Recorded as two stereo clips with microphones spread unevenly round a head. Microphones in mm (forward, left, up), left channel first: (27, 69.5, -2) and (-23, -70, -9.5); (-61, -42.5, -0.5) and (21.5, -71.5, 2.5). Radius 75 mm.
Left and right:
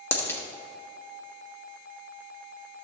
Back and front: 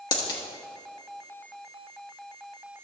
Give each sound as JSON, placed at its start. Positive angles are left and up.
{"t": 0.1, "sound": "a dropped coin", "azimuth_deg": 140, "distance_m": 1.0}